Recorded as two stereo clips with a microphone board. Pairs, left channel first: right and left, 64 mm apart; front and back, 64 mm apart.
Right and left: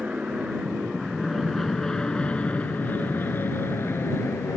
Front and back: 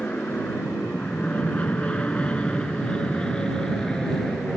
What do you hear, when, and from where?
0.0 s an aircraft: 45° left; by 4.6 s 80° right